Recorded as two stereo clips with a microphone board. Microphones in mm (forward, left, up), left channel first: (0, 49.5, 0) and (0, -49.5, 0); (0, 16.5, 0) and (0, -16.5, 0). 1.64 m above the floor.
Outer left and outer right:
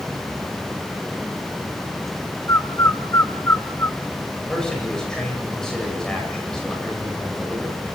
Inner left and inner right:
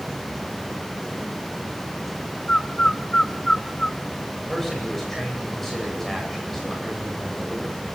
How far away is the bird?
About 0.8 m.